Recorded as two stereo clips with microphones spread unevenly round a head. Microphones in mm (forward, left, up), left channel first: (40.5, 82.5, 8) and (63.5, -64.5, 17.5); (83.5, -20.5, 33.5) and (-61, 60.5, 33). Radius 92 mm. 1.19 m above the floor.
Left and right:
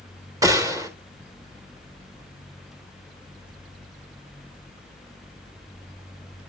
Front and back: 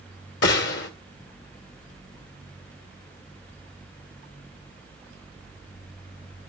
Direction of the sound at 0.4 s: 15° right.